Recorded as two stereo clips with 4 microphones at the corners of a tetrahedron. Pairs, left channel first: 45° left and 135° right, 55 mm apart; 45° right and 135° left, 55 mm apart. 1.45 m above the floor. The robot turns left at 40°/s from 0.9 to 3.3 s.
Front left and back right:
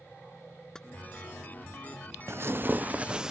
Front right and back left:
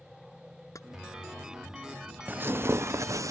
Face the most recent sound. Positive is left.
turn(degrees=145)